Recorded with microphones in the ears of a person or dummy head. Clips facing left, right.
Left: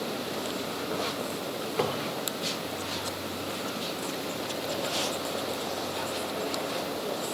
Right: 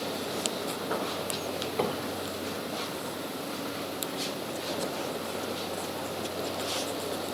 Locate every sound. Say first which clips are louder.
1.8 s a cupboard door: left 1 dB; 5° left (ahead or behind), 1.3 m